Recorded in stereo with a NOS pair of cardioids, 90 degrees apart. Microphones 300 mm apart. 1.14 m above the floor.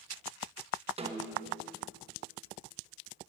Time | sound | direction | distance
1.0 | a snare drum | 20° right | 1.2 m